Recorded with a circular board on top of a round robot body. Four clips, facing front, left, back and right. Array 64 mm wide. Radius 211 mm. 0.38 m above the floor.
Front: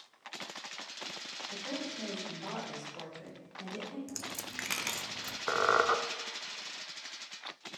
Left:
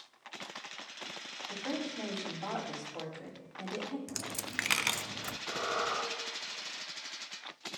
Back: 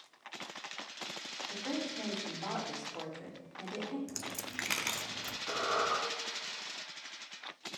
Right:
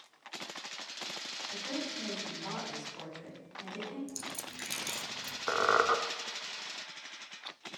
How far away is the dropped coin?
About 0.6 m.